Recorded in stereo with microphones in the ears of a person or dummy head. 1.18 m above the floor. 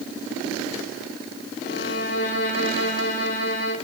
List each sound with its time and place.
1.6 s a violin: 65° left (ahead or behind), 3.5 m